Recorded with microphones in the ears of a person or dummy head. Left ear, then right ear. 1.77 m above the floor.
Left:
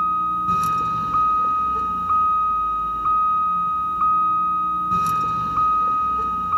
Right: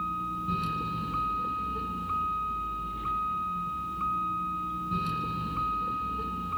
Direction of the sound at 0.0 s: 40° left (ahead or behind).